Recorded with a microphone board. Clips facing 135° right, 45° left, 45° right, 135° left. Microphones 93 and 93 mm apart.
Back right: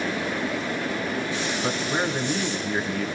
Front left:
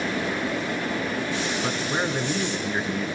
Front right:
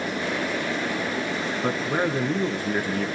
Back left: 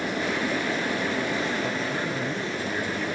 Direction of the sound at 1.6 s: 50° right.